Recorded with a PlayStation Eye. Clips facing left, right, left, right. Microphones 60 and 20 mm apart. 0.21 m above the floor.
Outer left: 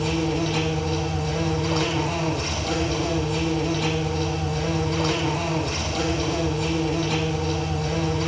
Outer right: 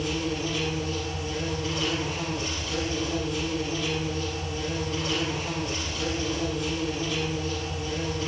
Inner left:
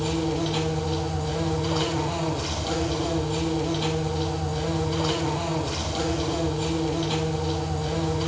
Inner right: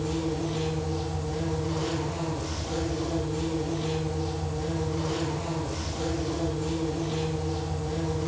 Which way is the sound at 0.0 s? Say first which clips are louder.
Outer left 5 dB, inner left 4 dB; 70° left (ahead or behind).